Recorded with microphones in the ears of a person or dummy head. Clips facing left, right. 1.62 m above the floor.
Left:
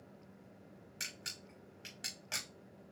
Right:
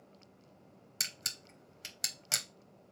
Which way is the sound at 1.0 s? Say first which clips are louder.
Left 1 dB; 50° right (ahead or behind).